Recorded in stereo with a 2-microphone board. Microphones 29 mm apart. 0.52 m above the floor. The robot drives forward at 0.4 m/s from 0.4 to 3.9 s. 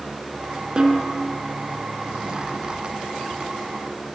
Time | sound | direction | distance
0.8 | a snare drum | 25° right (ahead or behind) | 2.5 m